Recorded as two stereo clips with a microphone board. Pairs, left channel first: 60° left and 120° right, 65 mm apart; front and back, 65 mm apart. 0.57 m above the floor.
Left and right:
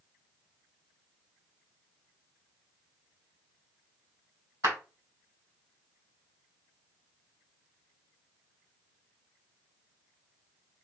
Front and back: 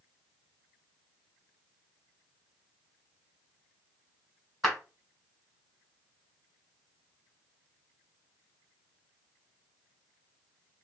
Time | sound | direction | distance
4.6 | a clap | 85° right | 1.8 m